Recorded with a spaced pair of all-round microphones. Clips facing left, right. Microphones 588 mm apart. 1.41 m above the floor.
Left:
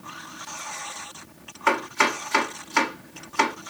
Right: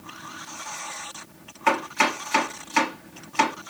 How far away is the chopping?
About 2 m.